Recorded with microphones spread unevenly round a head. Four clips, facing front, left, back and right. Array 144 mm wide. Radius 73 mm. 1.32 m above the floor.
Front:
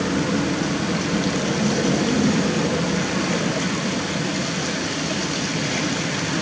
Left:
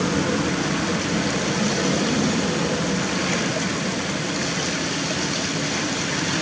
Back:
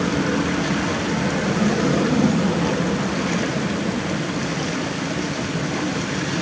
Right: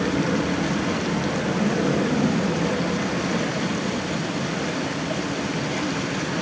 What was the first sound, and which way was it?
Only background noise.